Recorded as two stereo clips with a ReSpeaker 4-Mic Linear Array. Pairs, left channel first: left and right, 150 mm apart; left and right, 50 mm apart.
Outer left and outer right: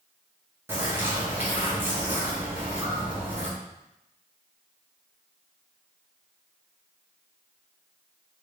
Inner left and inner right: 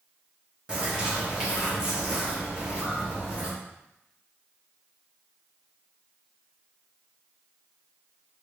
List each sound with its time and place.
0.7 s a bird: 15° right (ahead or behind), 1.1 m